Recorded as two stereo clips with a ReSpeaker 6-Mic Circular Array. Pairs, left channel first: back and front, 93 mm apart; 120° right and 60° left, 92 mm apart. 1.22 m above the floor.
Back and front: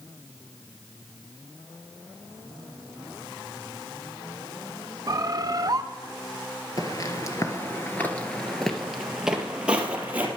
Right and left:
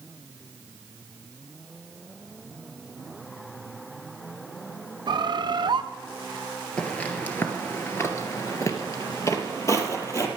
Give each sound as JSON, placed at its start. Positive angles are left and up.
{"t": 5.1, "sound": "a bird", "azimuth_deg": 40, "distance_m": 0.6}
{"t": 6.8, "sound": "footsteps", "azimuth_deg": 170, "distance_m": 1.6}